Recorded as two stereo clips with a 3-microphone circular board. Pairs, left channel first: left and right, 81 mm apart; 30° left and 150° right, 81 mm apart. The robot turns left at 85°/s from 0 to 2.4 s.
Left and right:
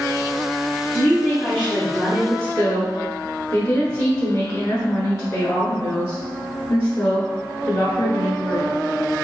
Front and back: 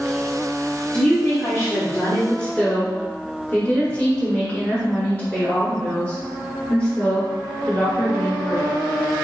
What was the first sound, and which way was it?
A woman speaking, 80° left.